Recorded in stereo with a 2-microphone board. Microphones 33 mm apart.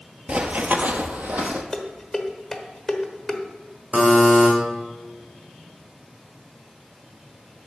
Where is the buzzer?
35° right (ahead or behind), 2 m.